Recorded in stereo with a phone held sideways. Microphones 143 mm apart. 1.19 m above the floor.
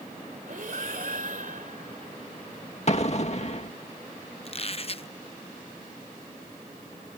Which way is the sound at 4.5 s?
45° left (ahead or behind).